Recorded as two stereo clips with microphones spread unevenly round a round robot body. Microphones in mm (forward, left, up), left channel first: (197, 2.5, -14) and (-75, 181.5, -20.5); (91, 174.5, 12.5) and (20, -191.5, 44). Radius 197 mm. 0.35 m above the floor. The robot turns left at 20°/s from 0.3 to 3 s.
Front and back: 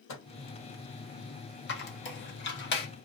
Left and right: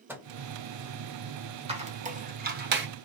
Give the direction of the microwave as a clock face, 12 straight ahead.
12 o'clock.